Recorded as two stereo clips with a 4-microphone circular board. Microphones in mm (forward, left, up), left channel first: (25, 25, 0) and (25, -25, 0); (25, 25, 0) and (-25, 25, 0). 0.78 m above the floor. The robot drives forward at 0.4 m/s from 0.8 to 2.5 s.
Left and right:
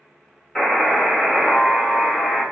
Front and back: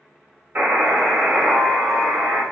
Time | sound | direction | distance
0.6 | a buzzer | 170° left | 1.5 m